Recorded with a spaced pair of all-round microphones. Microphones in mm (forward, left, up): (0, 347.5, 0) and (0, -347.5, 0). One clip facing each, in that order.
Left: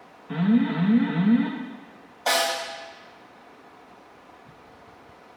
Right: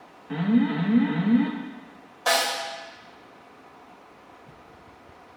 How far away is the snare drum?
About 1.5 m.